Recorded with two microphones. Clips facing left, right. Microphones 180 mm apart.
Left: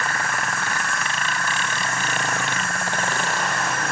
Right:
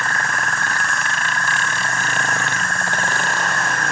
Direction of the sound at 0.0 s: 5° left (ahead or behind).